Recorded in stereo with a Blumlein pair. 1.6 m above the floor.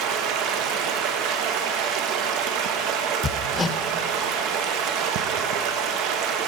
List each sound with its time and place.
0.0 s running water: 40° right, 0.8 m
3.2 s hammering: 15° left, 0.5 m